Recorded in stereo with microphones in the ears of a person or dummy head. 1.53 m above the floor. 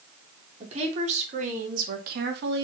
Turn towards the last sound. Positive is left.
turn(degrees=-70)  # may be behind; listen again after turning